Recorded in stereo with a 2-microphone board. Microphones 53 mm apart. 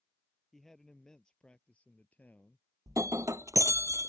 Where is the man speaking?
10° left (ahead or behind); by 2.6 s 35° left (ahead or behind).